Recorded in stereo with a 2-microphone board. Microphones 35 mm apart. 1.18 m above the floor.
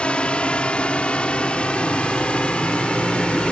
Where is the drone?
30° left (ahead or behind).